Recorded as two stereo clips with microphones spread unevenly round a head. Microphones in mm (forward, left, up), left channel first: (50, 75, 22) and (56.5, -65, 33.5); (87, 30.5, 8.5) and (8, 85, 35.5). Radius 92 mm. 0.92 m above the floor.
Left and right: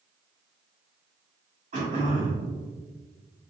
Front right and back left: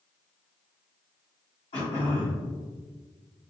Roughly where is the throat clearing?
Ahead right.